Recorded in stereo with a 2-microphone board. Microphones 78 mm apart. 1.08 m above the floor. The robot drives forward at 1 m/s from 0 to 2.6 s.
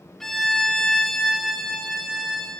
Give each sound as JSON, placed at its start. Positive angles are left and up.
{"t": 0.2, "sound": "a violin", "side_deg": 5, "distance_m": 0.7}